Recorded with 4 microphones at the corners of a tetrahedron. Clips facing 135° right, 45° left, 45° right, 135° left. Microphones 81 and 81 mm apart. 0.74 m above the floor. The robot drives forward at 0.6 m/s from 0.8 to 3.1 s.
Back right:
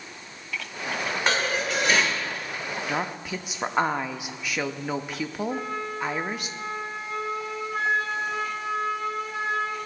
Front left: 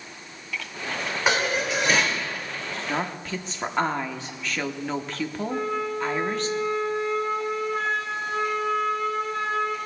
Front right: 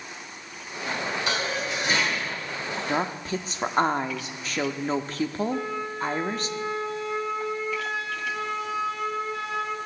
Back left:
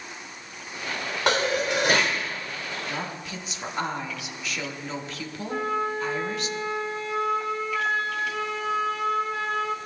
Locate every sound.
1.3 s dishes clattering: 130° left, 1.4 m; by 2.2 s 140° left, 1.8 m
2.9 s a woman speaking: 50° right, 0.7 m; by 6.5 s 60° right, 0.7 m
5.5 s a flute: 145° left, 2 m